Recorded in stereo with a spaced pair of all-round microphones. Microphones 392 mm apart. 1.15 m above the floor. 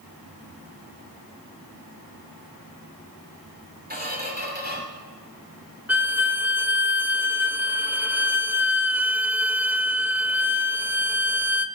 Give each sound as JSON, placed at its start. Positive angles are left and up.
{"t": 3.9, "sound": "a squeak", "side_deg": -25, "distance_m": 3.0}
{"t": 5.9, "sound": "a violin", "side_deg": -5, "distance_m": 0.5}